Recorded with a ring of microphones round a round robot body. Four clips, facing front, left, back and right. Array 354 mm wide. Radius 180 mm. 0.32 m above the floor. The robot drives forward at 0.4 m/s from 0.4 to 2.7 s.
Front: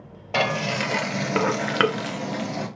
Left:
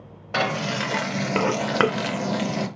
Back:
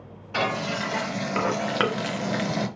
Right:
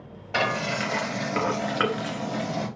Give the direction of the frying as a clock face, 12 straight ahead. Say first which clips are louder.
Left 1 dB, front 2 dB; 11 o'clock.